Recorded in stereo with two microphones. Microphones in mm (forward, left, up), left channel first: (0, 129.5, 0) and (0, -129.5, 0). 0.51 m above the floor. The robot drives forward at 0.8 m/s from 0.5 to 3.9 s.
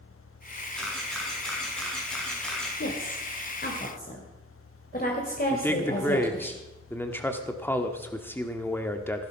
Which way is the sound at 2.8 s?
50° left (ahead or behind).